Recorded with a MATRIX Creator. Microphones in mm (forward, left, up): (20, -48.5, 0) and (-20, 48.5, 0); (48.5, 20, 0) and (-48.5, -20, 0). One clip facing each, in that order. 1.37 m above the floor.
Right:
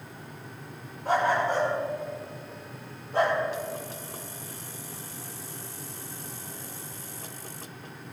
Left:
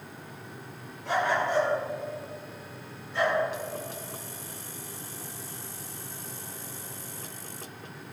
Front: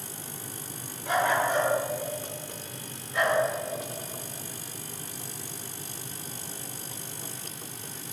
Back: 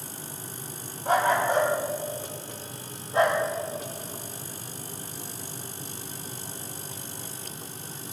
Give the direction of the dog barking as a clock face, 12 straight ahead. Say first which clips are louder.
Right 2 dB, back 2 dB; 4 o'clock.